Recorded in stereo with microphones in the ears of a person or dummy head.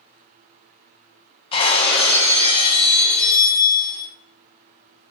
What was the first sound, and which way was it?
Breaking glass, 30° left (ahead or behind).